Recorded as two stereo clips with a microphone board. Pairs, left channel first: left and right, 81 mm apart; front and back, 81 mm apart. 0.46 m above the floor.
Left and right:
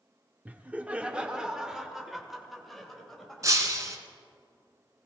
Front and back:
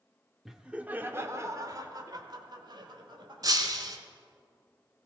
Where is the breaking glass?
140° right, 1.4 m.